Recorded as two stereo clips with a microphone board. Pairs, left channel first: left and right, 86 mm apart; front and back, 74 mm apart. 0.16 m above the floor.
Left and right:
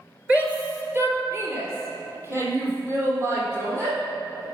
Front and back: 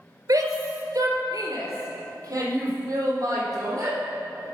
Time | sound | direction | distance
0.3 | a shout | 160° right | 2 m